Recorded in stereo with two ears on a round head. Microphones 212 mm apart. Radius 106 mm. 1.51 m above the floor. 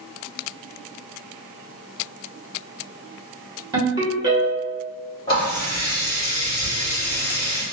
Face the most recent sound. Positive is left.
turn(degrees=20)  # may be behind; listen again after turning